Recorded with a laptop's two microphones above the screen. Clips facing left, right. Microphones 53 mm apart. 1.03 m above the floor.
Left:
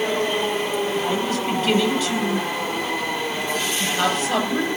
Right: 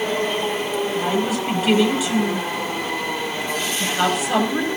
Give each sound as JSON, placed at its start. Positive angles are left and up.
{"t": 0.9, "sound": "a woman speaking", "side_deg": -10, "distance_m": 6.5}